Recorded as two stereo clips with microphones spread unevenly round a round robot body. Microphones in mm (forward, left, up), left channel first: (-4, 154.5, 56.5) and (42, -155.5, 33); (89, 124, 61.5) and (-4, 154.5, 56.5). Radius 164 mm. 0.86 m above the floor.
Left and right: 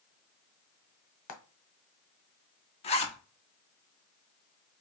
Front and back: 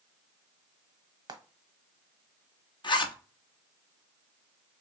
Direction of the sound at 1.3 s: 120° left.